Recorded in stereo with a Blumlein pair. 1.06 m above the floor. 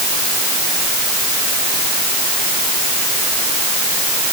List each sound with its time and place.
Only background noise.